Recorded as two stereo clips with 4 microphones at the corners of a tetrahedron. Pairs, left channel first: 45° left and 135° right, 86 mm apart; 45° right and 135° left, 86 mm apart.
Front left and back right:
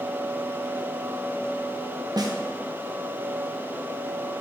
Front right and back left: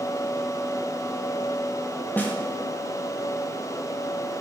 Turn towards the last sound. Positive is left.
turn(degrees=-110)